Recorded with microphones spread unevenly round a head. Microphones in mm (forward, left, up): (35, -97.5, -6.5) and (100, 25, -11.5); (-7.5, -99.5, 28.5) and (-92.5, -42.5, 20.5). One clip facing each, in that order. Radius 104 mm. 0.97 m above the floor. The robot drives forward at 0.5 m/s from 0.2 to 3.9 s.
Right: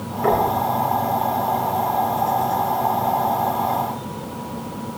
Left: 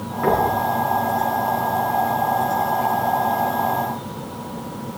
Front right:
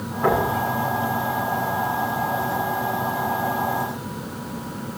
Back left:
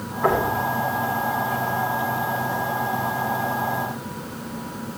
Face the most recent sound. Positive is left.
turn(degrees=55)